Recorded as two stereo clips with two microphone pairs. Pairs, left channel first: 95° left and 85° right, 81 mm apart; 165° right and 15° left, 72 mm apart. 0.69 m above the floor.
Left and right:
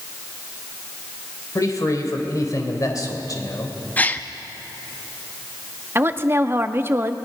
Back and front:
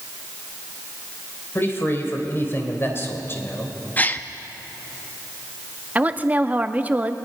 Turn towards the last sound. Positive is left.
turn(degrees=-45)